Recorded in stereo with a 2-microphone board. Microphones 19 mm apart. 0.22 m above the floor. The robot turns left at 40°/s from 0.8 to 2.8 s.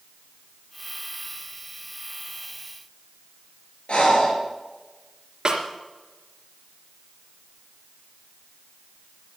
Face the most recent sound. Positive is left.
turn(degrees=-35)  # may be behind; listen again after turning